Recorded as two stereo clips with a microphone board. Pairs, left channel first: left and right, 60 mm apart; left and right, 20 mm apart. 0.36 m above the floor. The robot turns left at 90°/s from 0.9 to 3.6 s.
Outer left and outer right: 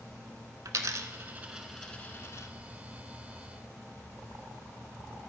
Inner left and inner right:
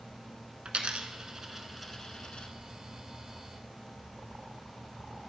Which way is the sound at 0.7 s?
70° right (ahead or behind).